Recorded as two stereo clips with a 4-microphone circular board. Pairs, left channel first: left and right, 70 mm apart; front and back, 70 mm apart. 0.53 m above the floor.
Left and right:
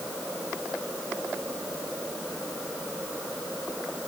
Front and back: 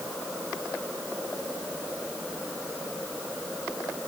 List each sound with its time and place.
Only background noise.